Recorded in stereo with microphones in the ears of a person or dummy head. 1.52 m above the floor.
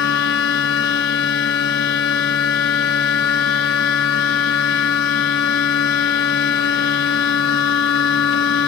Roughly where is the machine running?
Left.